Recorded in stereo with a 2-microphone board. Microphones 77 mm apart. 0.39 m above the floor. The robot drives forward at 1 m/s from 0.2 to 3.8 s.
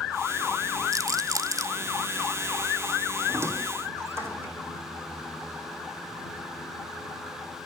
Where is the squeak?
35° right (ahead or behind), 3 m; by 4.5 s 30° right (ahead or behind), 3.5 m.